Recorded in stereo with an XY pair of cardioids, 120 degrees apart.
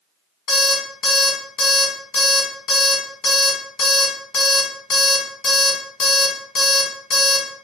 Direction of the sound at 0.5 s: 65° left.